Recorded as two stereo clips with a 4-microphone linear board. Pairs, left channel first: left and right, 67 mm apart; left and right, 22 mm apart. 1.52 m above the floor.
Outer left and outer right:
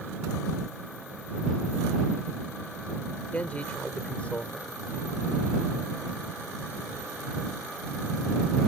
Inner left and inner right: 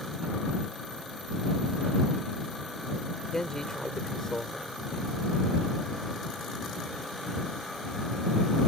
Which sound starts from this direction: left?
A man speaking, at 3.3 s.